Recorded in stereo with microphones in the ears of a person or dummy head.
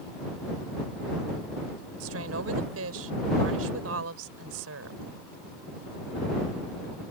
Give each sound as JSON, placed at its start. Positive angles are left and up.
{"t": 2.0, "sound": "a woman speaking", "side_deg": -80}